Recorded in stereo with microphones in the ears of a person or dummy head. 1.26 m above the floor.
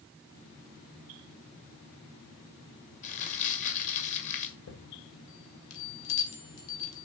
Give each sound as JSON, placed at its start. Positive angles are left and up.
{"t": 3.0, "sound": "crumpling", "side_deg": 35, "distance_m": 2.0}
{"t": 4.7, "sound": "a chime", "side_deg": 75, "distance_m": 3.0}